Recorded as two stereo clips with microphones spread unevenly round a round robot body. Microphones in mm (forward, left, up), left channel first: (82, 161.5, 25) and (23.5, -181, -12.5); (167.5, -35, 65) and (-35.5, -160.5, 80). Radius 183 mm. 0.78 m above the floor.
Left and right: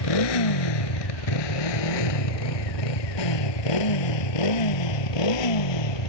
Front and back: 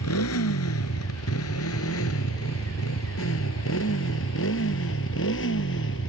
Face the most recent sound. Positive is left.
turn(degrees=85)